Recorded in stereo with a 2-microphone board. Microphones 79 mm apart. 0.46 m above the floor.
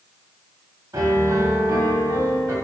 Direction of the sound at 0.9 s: 45° right (ahead or behind).